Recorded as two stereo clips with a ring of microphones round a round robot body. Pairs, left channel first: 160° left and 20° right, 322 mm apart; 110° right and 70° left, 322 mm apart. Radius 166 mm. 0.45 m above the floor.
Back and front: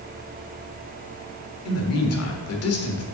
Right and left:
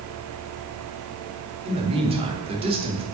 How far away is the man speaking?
About 1.4 m.